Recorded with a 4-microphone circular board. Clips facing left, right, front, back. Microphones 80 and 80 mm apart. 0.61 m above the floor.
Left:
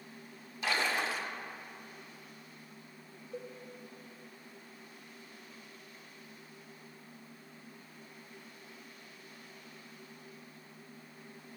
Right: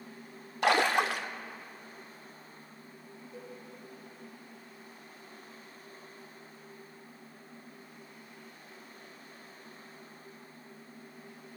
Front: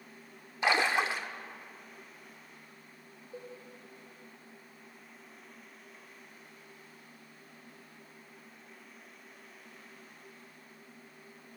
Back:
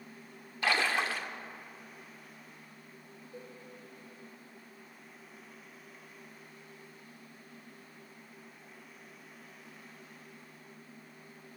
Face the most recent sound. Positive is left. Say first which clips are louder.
# left 4 dB, front 3 dB
turn(degrees=60)